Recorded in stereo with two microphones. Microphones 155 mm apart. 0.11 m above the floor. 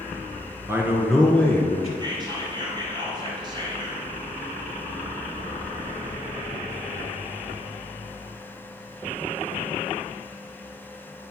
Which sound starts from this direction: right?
Whispering, at 2.0 s.